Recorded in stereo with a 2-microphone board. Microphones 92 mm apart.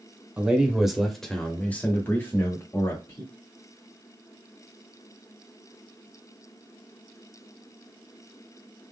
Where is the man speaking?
15° right (ahead or behind), 1.1 m; by 3.2 s 40° left (ahead or behind), 1.3 m.